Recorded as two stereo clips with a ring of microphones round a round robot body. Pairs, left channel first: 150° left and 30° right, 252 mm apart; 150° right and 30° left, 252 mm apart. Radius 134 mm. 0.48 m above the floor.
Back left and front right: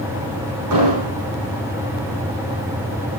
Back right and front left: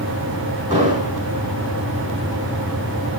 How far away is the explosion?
About 7 m.